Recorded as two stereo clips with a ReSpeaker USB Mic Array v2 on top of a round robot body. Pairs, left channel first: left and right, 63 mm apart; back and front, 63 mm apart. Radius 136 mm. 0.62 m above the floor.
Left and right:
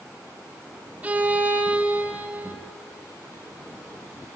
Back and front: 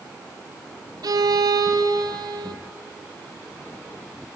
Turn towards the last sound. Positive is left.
turn(degrees=-20)